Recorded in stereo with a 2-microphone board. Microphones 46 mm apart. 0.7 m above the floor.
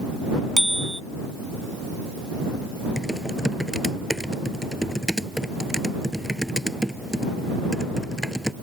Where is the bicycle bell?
10° left (ahead or behind).